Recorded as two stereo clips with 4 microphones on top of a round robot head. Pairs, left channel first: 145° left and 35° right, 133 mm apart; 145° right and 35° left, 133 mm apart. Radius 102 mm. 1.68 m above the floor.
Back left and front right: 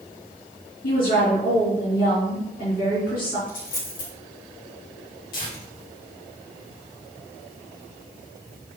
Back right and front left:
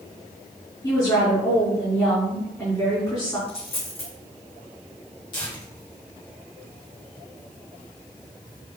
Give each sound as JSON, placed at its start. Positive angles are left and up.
{"t": 0.8, "sound": "a woman speaking", "azimuth_deg": 155, "distance_m": 4.0}
{"t": 3.5, "sound": "a dropped coin", "azimuth_deg": 165, "distance_m": 3.0}
{"t": 5.3, "sound": "tearing paper", "azimuth_deg": 160, "distance_m": 3.5}